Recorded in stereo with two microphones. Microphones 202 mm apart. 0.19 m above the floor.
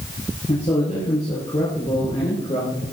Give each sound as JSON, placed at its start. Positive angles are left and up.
{"t": 0.5, "sound": "a man speaking", "side_deg": 30, "distance_m": 4.0}